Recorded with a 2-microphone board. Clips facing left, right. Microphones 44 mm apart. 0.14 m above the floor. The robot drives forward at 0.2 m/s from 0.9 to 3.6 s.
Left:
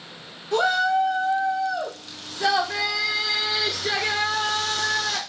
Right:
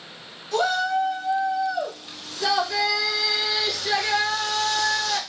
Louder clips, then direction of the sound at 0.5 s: Left 2 dB; 30° left (ahead or behind).